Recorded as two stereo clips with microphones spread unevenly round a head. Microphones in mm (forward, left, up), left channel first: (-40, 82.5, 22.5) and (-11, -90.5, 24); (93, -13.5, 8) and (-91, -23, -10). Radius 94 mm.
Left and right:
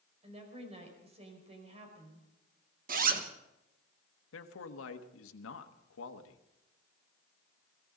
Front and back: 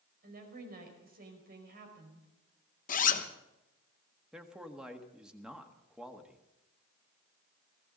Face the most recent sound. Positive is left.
turn(degrees=95)